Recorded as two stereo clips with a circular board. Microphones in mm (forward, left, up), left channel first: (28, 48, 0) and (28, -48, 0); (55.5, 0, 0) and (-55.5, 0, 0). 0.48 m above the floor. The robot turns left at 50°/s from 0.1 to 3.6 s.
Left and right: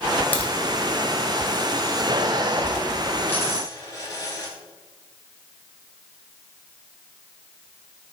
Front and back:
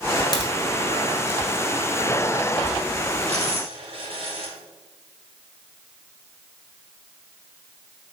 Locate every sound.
0.3 s a crack: 25° left, 1.2 m; by 0.5 s 20° left, 1.2 m
3.3 s a dropped coin: 160° left, 2.5 m; by 4.5 s 145° left, 2.5 m